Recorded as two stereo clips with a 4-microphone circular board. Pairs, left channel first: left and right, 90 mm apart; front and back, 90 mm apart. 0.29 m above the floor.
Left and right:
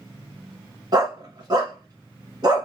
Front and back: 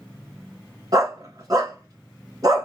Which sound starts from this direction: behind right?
A dog barking, at 0.9 s.